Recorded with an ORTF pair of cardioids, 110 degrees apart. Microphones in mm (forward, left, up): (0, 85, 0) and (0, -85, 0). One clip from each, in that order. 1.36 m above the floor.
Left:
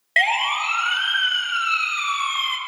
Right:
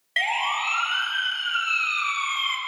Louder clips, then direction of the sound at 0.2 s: Left 5 dB; 40° left.